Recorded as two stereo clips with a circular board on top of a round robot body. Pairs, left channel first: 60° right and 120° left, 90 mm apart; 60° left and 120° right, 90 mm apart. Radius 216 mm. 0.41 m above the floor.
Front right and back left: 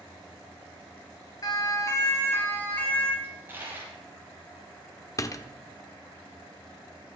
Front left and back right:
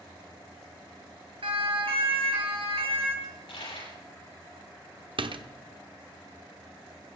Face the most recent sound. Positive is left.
turn(degrees=-110)